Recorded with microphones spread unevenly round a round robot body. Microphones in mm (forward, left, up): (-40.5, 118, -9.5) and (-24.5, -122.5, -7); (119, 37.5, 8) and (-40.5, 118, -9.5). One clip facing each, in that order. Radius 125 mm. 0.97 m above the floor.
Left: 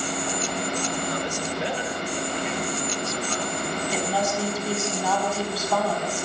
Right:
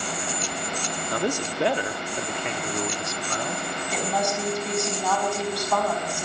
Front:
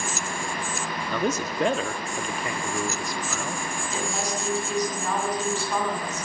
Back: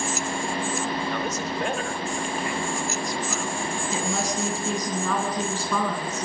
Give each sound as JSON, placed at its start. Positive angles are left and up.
{"t": 1.1, "sound": "a man speaking", "azimuth_deg": -45, "distance_m": 1.6}
{"t": 3.9, "sound": "a woman speaking", "azimuth_deg": 180, "distance_m": 7.0}